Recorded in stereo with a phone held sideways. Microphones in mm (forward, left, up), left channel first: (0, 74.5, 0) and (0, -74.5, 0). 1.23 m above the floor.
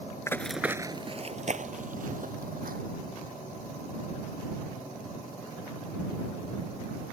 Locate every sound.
0.3 s running footsteps: 20° left (ahead or behind); by 2.8 s 70° right (ahead or behind)